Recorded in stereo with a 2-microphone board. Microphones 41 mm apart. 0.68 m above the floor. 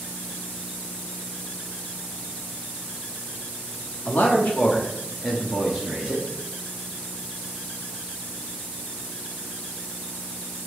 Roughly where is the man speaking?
Left.